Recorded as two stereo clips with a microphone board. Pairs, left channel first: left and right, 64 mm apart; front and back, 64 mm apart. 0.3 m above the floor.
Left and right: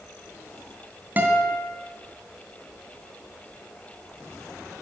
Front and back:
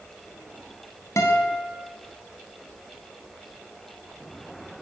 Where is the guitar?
30° right, 2.5 m.